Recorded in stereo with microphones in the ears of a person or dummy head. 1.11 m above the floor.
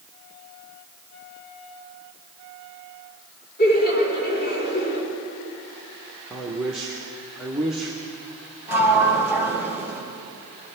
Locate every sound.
3.6 s laughter: 50° left (ahead or behind), 4.5 m
6.3 s a man speaking: 5° right (ahead or behind), 1.1 m
8.7 s a sliding door: 10° right (ahead or behind), 2 m